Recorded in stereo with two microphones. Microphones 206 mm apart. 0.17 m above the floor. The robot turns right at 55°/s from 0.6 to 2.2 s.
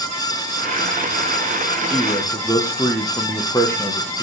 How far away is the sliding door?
No sliding door in this recording.